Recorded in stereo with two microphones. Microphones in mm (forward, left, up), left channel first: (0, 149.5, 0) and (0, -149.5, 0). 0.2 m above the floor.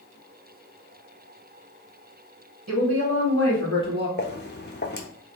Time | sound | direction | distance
2.7 | a woman speaking | 60° right (ahead or behind) | 1.8 m
4.2 | footsteps | 35° left (ahead or behind) | 0.7 m